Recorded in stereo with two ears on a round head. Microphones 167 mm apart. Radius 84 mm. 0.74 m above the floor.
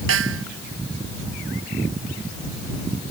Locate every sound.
0.1 s a snare drum: 80° right